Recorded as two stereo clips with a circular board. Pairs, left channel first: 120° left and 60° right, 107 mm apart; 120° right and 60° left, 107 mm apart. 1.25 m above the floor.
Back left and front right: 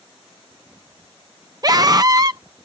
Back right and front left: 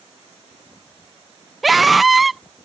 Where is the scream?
30° right.